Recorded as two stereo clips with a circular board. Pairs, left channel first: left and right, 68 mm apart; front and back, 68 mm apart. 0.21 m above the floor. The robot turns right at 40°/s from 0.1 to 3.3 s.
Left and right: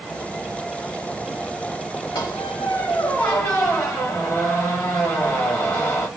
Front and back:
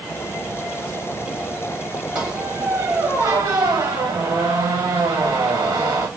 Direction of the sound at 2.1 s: 115° left.